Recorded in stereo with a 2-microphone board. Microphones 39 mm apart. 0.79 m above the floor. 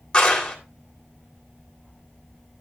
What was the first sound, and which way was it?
A clap, 20° left (ahead or behind).